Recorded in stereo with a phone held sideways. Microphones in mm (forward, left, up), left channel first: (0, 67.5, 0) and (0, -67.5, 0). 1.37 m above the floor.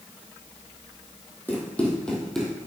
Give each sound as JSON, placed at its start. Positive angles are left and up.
{"t": 1.5, "sound": "running footsteps", "side_deg": 15, "distance_m": 2.5}